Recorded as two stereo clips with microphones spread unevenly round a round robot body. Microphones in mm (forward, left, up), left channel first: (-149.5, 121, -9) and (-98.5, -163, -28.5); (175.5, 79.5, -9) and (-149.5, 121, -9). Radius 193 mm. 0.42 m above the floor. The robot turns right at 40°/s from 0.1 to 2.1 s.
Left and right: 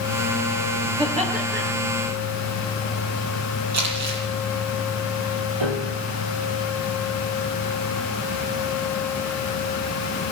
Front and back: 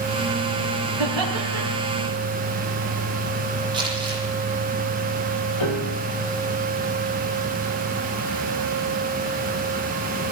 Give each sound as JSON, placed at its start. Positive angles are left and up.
{"t": 1.0, "sound": "laughter", "azimuth_deg": -155, "distance_m": 8.0}
{"t": 3.7, "sound": "crumpling", "azimuth_deg": -110, "distance_m": 9.0}
{"t": 5.6, "sound": "a piano", "azimuth_deg": -50, "distance_m": 3.5}